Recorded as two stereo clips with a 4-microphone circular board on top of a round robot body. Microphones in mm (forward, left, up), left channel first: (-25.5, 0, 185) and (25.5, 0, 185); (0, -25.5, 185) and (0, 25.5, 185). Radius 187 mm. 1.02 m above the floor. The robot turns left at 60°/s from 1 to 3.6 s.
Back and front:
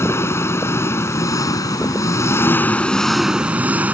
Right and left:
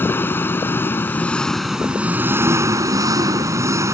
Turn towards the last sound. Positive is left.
turn(degrees=65)